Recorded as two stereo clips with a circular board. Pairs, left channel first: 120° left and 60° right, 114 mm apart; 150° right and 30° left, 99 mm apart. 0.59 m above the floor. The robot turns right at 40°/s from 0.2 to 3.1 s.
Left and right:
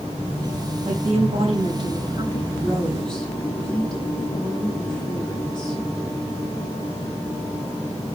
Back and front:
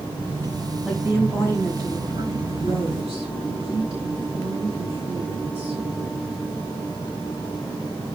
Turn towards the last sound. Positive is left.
turn(degrees=40)